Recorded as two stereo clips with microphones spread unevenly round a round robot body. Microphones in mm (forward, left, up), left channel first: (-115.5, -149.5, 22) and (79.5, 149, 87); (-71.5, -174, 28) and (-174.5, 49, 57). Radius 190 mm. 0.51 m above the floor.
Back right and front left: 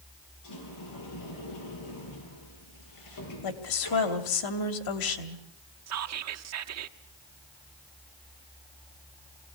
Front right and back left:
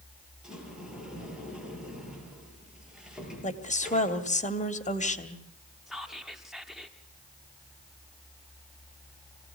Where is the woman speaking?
120° right, 2.5 m.